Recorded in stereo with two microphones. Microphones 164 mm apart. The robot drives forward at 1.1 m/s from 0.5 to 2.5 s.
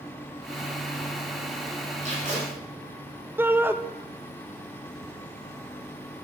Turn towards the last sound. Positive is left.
turn(degrees=80)